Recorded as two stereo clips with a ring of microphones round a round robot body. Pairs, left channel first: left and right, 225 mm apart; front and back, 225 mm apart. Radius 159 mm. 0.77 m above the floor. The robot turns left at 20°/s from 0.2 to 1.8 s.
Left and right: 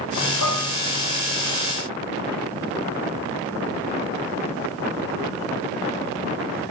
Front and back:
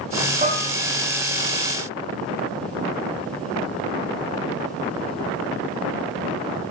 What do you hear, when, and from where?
0.4 s dishes clattering: 120° left, 5.5 m; by 0.7 s 115° left, 5.5 m